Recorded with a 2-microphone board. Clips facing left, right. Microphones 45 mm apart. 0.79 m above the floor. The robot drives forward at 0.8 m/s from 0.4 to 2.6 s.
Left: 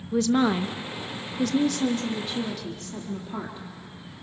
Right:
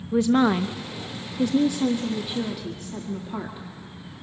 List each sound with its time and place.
0.1 s a woman speaking: 15° right (ahead or behind), 0.7 m; by 4.2 s 5° right (ahead or behind), 1.6 m